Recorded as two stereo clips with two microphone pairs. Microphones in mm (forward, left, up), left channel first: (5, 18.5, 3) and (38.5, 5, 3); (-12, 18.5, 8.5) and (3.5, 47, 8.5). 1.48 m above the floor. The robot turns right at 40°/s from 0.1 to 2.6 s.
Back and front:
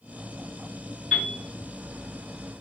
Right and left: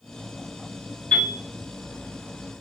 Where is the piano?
130° right, 1.7 m; by 1.4 s 120° right, 1.7 m.